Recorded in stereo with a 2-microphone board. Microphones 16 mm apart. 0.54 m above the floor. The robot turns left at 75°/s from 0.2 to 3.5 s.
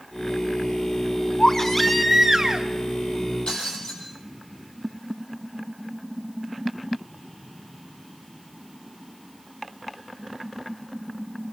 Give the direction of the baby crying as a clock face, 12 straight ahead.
11 o'clock.